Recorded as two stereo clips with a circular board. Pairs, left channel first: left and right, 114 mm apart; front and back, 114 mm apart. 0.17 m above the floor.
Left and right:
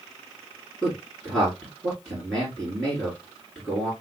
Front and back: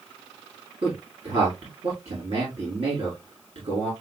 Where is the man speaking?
Straight behind, 2.0 m.